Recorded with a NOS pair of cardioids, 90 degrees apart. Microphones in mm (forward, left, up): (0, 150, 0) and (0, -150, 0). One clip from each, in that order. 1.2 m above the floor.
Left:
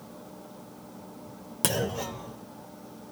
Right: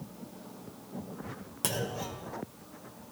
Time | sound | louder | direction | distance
1.6 | a clunk | left 5 dB | 35° left | 0.8 m